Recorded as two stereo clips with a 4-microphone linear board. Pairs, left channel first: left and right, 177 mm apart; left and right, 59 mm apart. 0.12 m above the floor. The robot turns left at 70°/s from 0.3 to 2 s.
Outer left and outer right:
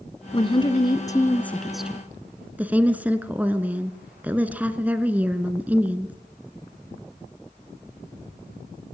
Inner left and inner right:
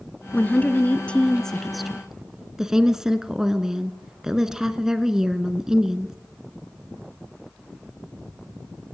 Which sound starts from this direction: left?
A woman speaking, at 0.3 s.